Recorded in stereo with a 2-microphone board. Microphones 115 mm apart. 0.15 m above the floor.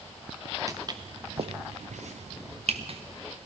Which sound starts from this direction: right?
Footsteps, at 0.7 s.